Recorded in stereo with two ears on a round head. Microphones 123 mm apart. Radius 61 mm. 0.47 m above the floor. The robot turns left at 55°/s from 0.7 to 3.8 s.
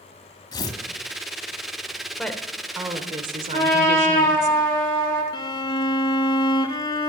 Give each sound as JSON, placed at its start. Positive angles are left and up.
{"t": 0.5, "sound": "tearing paper", "side_deg": 30, "distance_m": 1.4}
{"t": 2.2, "sound": "a woman speaking", "azimuth_deg": 10, "distance_m": 1.3}
{"t": 3.5, "sound": "a trumpet", "side_deg": 30, "distance_m": 5.5}
{"t": 5.3, "sound": "a violin", "side_deg": 35, "distance_m": 0.8}